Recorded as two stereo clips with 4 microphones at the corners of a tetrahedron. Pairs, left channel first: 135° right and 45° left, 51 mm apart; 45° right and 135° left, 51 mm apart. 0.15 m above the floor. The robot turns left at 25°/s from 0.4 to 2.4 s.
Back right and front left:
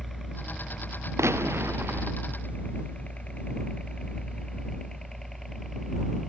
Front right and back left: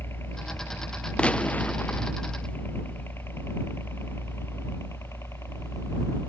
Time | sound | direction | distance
0.0 | a helicopter | 50° right | ?
1.2 | a gunshot | 25° left | ?